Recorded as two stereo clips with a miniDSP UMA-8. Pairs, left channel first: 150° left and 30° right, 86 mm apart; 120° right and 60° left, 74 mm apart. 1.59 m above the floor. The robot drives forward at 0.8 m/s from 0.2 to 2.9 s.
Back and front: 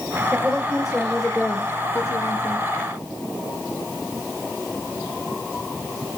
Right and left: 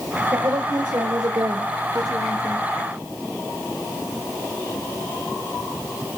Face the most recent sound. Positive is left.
turn(degrees=125)